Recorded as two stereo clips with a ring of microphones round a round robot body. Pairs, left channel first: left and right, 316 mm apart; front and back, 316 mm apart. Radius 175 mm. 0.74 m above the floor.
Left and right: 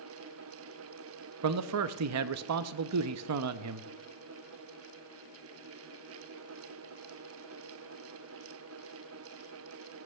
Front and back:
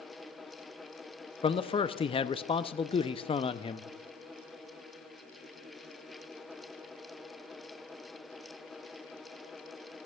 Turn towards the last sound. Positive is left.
turn(degrees=-70)